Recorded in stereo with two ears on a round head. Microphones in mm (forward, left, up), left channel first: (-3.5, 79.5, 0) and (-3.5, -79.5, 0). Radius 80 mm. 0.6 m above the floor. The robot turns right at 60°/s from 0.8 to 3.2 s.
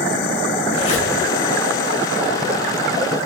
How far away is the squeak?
About 0.7 m.